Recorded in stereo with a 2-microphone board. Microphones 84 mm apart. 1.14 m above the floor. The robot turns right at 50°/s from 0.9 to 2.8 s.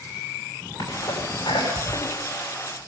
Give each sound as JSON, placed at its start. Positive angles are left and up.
{"t": 0.8, "sound": "a sneeze", "side_deg": 65, "distance_m": 7.5}